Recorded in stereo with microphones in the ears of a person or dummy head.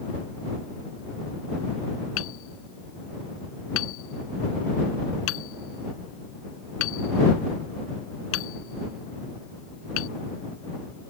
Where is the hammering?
75° left (ahead or behind).